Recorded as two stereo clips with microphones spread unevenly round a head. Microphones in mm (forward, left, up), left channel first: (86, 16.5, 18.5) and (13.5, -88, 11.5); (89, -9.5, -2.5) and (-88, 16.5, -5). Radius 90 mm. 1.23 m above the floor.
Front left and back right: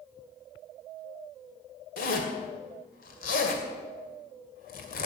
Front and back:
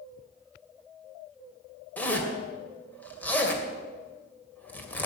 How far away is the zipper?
About 2 m.